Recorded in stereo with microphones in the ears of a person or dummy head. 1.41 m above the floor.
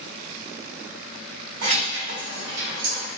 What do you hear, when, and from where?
1.6 s keys jangling: 60° right (ahead or behind), 1.6 m; by 3.1 s 45° right (ahead or behind), 0.9 m